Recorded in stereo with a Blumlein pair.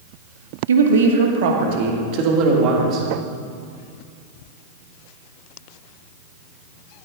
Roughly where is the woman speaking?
Right.